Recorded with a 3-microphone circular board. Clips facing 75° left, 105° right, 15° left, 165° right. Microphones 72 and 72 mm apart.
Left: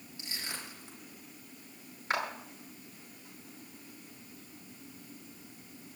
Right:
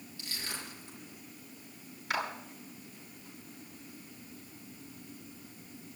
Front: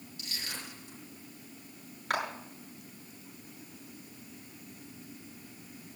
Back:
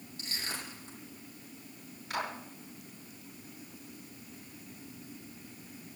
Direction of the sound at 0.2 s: 145° left.